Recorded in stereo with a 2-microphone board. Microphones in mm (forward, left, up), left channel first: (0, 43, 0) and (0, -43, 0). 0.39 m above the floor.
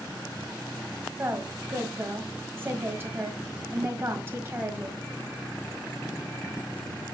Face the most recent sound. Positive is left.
turn(degrees=-30)  # may be behind; listen again after turning